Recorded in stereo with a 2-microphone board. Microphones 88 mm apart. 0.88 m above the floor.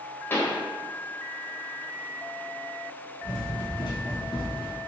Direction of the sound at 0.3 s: 25° left (ahead or behind).